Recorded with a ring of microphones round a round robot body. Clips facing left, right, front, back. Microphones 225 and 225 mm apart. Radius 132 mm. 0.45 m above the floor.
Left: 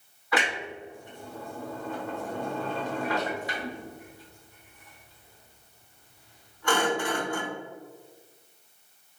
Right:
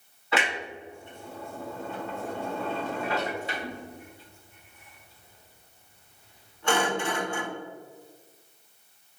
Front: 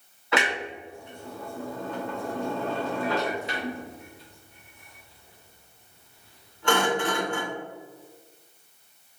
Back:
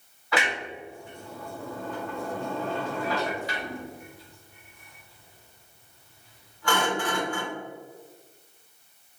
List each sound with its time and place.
0.3 s a clunk: 45° right, 1.3 m